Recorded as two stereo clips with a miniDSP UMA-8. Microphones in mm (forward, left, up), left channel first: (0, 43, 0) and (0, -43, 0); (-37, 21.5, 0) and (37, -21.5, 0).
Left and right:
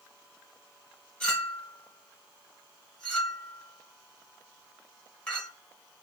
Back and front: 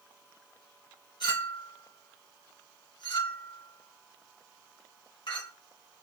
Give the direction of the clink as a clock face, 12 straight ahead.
7 o'clock.